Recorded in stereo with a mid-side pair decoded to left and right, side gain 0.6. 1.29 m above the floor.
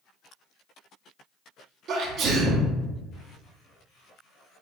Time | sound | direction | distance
1.9 | a sneeze | 55° right | 0.9 m